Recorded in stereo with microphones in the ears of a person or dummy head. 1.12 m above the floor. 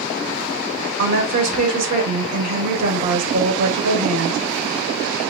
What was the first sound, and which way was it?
A woman speaking, 80° right.